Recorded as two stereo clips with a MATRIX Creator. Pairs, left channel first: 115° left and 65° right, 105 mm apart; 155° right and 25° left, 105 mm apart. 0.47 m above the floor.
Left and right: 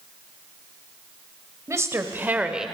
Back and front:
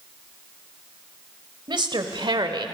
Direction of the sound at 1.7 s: 10° right.